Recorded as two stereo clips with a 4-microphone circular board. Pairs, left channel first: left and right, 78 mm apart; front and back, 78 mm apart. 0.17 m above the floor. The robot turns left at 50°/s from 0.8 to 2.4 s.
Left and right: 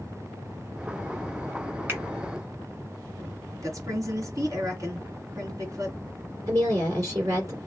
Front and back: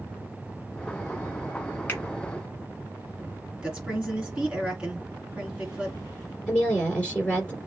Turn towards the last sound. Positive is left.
turn(degrees=-70)